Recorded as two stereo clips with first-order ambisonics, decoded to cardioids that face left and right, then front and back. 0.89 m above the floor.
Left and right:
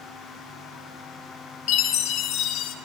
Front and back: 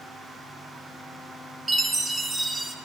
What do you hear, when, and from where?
1.7 s a chime: 100° left, 0.8 m